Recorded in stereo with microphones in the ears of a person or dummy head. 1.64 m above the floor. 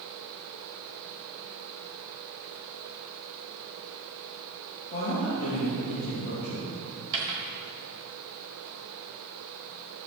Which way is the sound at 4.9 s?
55° left (ahead or behind).